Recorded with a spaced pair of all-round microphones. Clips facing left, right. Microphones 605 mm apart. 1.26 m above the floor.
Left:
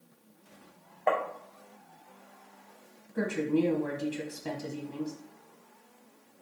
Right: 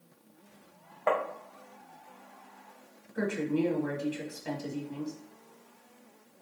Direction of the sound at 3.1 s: 60° left (ahead or behind).